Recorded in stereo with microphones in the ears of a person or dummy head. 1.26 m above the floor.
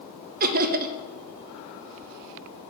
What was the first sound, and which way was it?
Laughter, 35° right (ahead or behind).